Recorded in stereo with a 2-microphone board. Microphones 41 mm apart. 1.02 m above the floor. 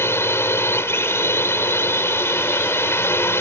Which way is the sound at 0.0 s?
70° left (ahead or behind).